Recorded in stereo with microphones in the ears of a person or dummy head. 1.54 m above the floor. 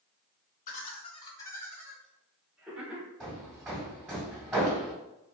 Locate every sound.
0.7 s laughter: 50° left (ahead or behind), 0.7 m; by 3.1 s 10° right (ahead or behind), 1.5 m
3.2 s hammering: 5° right (ahead or behind), 1.9 m